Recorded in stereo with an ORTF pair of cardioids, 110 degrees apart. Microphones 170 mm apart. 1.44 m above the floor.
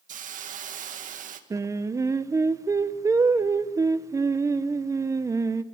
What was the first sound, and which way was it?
A hiss, 50° right.